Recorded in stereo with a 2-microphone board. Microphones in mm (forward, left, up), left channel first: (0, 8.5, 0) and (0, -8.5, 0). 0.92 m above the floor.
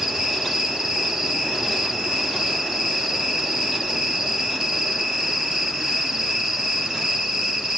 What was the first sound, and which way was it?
An insect, 45° right (ahead or behind).